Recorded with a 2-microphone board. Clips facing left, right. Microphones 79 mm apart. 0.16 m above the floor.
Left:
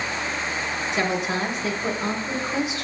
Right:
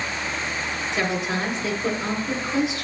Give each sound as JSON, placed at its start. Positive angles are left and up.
{"t": 0.9, "sound": "a woman speaking", "side_deg": 20, "distance_m": 1.5}